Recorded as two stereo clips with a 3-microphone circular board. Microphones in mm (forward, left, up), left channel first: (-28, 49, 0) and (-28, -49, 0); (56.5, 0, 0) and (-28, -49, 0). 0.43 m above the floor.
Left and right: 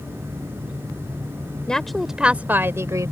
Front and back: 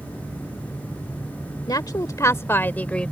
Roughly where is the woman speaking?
Ahead.